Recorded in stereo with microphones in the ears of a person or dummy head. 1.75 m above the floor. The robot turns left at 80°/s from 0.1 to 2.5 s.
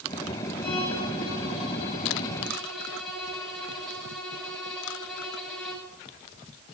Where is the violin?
150° left, 6.5 m; by 5.9 s straight ahead, 6.5 m.